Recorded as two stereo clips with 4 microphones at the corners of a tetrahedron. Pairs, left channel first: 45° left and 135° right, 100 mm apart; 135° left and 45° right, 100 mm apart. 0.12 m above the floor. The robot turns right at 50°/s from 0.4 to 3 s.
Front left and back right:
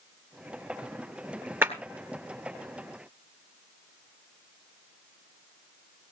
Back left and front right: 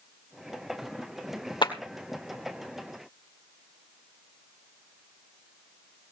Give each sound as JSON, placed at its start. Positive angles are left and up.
{"t": 1.6, "sound": "a clap", "azimuth_deg": 160, "distance_m": 1.9}